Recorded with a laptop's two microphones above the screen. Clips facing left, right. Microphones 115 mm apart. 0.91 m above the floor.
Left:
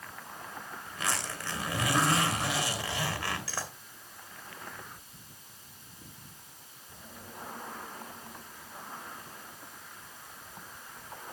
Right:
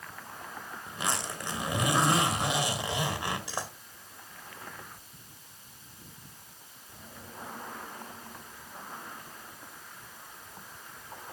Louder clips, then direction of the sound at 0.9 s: Right 2 dB; 20° right (ahead or behind).